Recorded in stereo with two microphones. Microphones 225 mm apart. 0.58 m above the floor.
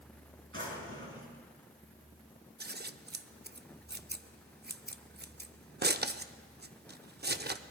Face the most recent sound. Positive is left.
turn(degrees=-45)  # may be behind; listen again after turning